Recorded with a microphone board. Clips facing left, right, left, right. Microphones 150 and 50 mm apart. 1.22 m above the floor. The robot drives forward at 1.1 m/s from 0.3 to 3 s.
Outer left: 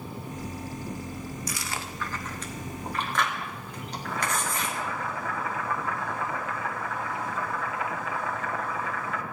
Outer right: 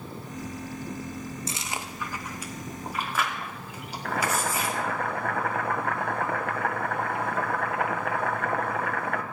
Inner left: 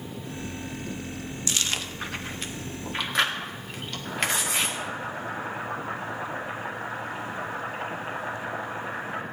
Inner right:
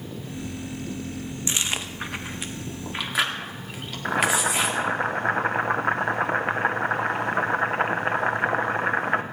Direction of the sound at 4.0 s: 60° right (ahead or behind).